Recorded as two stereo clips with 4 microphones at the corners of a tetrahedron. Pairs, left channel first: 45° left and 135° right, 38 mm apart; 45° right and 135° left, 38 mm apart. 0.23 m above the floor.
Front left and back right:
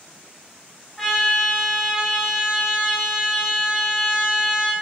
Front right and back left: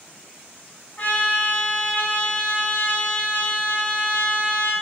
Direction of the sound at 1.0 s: 35° right.